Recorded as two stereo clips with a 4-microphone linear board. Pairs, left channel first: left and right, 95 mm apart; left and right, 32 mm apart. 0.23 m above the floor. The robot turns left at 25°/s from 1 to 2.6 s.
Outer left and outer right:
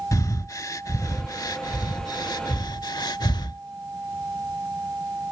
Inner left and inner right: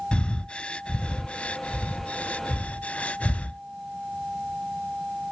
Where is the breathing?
40° left (ahead or behind); by 3.6 s 50° left (ahead or behind).